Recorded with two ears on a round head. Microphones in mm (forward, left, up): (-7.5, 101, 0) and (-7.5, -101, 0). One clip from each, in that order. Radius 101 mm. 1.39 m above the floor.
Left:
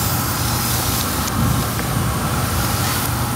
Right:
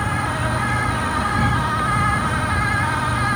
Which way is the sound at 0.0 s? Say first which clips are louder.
Even; 10° left (ahead or behind).